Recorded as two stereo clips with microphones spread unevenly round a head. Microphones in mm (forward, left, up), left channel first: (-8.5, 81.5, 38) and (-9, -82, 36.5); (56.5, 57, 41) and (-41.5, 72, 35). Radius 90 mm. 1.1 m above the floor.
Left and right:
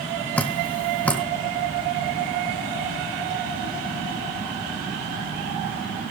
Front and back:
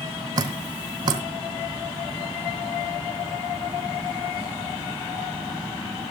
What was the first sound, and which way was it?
Dripping, 165° left.